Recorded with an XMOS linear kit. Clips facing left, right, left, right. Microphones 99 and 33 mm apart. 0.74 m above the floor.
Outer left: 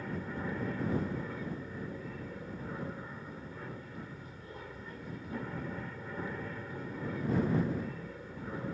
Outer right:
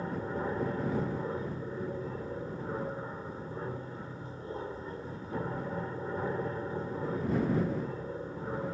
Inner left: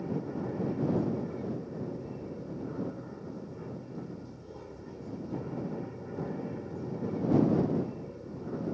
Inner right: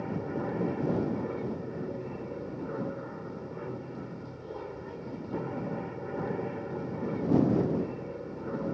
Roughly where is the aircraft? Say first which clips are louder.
Outer right 4 dB, inner right 1 dB; right.